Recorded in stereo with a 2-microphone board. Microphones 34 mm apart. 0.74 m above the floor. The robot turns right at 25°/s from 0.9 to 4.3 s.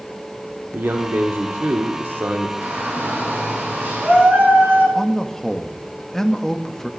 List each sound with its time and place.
0.7 s a man speaking: 105° right, 1.4 m; by 2.5 s 65° right, 1.4 m
2.6 s a shout: 110° right, 9 m; by 4.8 s 70° right, 9 m
5.0 s a man speaking: 10° left (ahead or behind), 0.9 m